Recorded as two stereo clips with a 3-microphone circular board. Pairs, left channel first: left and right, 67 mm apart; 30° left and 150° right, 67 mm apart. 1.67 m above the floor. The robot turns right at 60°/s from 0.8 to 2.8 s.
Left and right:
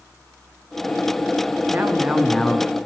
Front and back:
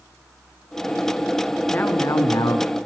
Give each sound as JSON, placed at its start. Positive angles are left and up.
{"t": 1.7, "sound": "a man speaking", "azimuth_deg": -40, "distance_m": 0.8}